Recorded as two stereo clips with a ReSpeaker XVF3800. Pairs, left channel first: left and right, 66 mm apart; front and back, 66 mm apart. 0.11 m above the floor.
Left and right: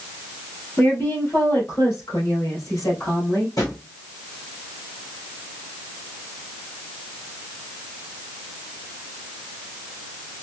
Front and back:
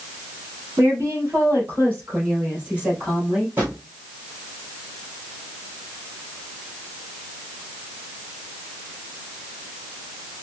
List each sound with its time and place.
0.8 s a woman speaking: 135° left, 2.5 m; by 3.5 s 105° left, 3 m
3.6 s a drawer: 115° left, 2.5 m